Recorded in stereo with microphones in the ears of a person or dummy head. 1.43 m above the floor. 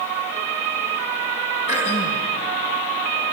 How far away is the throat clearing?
About 3.5 m.